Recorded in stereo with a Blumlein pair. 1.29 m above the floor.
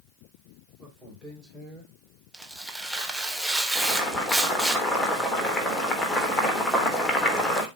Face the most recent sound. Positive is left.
turn(degrees=10)